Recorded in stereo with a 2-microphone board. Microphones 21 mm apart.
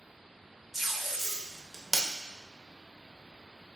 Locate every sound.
0.7 s tape being pulled: 15° right (ahead or behind), 0.5 m